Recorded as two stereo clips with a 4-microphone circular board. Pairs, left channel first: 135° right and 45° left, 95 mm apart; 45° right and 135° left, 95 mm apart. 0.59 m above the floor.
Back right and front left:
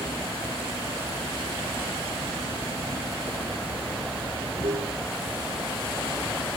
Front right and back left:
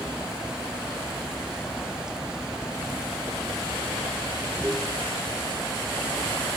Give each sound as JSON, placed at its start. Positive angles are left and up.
{"t": 0.0, "sound": "running water", "azimuth_deg": 55}